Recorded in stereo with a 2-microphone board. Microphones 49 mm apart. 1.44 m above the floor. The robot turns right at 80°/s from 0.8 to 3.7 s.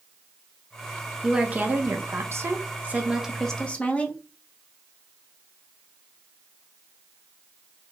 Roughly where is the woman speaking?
Behind.